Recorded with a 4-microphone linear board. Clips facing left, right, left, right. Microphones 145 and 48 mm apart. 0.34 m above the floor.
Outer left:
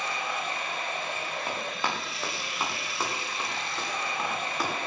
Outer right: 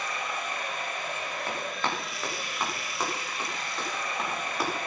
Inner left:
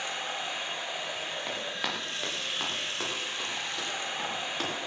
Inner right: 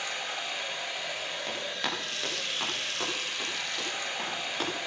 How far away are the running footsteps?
About 8 m.